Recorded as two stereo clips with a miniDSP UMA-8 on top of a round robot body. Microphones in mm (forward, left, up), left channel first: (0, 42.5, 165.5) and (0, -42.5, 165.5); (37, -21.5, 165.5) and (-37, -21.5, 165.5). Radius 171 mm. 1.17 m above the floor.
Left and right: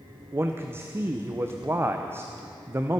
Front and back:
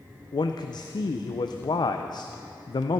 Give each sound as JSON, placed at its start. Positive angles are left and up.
{"t": 0.3, "sound": "a man speaking", "azimuth_deg": -25, "distance_m": 0.6}